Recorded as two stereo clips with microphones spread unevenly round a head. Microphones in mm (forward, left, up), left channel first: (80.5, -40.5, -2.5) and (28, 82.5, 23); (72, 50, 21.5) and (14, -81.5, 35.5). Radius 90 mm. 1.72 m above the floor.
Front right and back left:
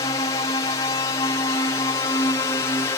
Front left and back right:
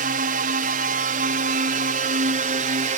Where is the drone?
125° right.